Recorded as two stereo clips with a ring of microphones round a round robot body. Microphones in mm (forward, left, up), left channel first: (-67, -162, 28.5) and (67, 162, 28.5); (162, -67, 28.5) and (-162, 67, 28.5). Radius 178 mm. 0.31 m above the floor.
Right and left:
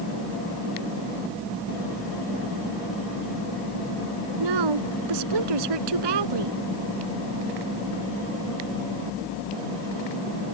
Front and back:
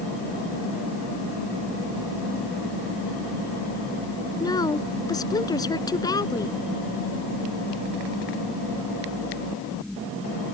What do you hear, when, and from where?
4.4 s a woman speaking: 55° left